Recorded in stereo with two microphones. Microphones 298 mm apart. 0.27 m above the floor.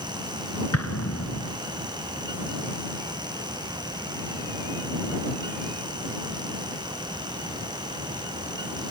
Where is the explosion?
55° left (ahead or behind).